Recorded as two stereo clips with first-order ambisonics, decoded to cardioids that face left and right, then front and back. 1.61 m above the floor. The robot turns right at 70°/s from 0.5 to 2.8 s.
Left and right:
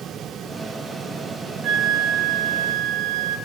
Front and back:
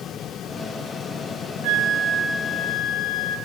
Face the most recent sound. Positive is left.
turn(degrees=-55)